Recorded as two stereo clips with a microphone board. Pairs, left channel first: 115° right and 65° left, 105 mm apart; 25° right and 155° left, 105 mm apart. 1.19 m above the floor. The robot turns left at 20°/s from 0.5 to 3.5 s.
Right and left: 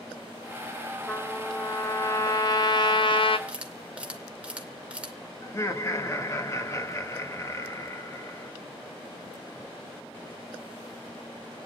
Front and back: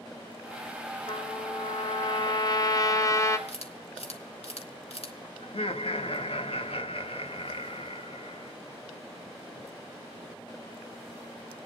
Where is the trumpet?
35° right, 1.9 m; by 3.4 s 85° right, 1.9 m.